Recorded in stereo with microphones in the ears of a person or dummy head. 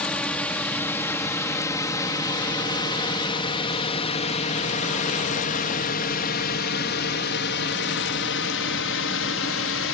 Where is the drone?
5° left (ahead or behind); by 9.9 s 60° left (ahead or behind).